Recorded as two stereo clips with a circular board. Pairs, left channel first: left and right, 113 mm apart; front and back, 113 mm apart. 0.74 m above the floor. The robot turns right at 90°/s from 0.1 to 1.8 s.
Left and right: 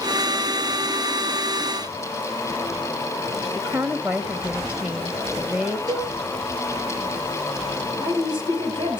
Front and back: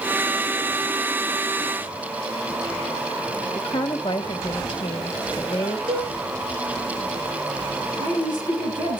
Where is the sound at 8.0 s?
135° right, 5.5 m.